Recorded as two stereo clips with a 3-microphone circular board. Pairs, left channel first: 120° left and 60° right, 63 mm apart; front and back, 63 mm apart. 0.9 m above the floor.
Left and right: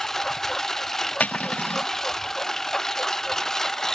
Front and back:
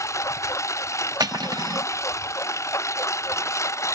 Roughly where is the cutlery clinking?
Behind.